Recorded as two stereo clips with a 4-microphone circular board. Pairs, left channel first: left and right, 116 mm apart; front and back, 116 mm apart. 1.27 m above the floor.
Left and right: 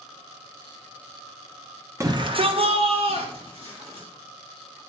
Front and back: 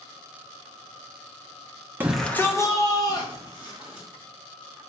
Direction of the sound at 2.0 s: 125° right.